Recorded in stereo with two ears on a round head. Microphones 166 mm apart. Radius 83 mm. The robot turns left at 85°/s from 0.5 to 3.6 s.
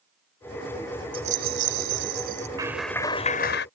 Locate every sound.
1.1 s a rattle: 30° right; by 2.5 s 145° right
2.6 s a clap: 160° right; by 3.7 s 115° left